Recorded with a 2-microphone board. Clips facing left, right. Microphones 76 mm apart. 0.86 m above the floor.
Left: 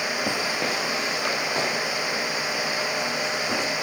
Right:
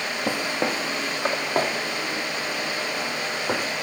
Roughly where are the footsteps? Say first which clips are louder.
Right 1 dB; centre.